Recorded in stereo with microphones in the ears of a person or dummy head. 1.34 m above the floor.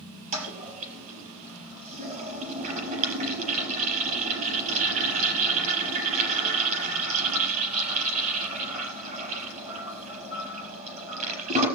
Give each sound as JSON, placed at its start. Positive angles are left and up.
{"t": 0.3, "sound": "a toilet flushing", "side_deg": -40, "distance_m": 4.5}